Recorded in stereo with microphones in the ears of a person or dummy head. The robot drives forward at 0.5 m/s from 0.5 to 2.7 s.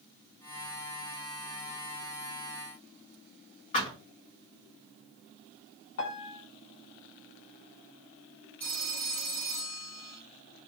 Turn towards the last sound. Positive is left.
turn(degrees=10)  # may be behind; listen again after turning